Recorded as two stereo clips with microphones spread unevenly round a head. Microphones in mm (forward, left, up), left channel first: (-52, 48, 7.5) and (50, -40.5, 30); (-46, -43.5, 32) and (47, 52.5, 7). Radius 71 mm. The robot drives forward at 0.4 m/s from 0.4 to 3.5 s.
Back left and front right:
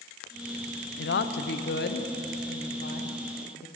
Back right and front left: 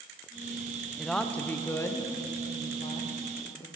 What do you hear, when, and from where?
1.0 s a woman speaking: 135° left, 0.5 m; by 3.7 s 165° left, 1.4 m